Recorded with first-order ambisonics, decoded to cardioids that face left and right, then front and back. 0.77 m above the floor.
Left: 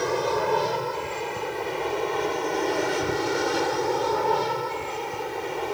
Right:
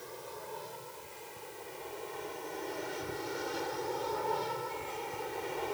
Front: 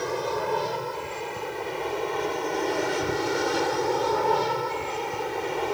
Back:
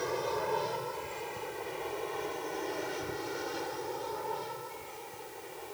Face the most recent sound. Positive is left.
turn(degrees=25)